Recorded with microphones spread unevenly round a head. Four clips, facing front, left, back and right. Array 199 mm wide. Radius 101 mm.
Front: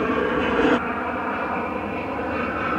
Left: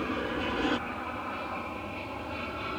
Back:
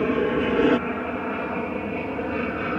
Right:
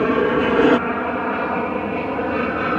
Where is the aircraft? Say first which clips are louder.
Right 15 dB, even; 95° right; by 2.8 s 90° right.